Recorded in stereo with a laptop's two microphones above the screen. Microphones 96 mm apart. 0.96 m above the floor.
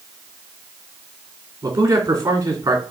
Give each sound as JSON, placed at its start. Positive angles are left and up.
{"t": 1.6, "sound": "a man speaking", "side_deg": -45, "distance_m": 2.5}